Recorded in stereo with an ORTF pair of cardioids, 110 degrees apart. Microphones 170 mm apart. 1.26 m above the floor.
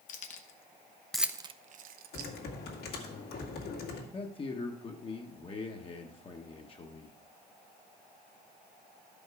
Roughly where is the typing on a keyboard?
Left.